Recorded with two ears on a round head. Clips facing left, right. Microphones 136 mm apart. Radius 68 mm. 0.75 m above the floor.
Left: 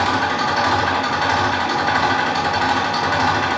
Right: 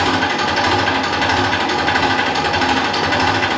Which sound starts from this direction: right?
An engine running, at 0.0 s.